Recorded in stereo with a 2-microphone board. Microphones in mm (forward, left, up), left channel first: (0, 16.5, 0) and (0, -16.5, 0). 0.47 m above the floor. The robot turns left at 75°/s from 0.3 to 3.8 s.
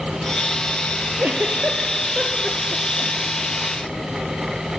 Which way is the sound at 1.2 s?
80° right.